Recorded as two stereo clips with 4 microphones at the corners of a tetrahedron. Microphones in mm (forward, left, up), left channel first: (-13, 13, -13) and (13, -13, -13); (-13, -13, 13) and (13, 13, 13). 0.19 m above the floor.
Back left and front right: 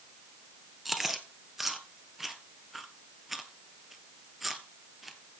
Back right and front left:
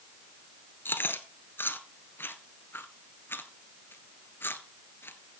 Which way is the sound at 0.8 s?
130° right.